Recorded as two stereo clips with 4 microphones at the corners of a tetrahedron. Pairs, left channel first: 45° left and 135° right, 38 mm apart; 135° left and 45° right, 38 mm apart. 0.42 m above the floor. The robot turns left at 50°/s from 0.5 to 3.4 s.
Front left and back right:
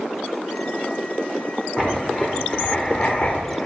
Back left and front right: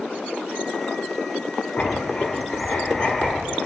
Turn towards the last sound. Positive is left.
turn(degrees=70)